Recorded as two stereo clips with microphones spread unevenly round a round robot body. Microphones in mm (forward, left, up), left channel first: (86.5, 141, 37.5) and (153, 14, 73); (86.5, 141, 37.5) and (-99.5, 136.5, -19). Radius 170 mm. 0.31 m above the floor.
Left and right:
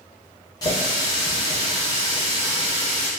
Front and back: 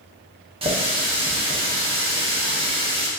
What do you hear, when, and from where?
0.6 s a running tap: 155° left, 1.0 m